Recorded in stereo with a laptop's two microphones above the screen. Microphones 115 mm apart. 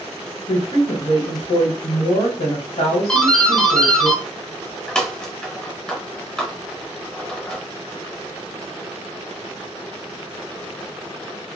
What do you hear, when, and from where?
0.5 s a woman speaking: 70° left (ahead or behind), 0.8 m
3.1 s a doorbell: 5° left (ahead or behind), 0.6 m